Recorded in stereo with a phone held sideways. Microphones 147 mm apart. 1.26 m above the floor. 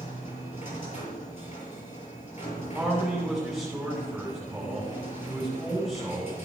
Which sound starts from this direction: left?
A machine running, at 0.0 s.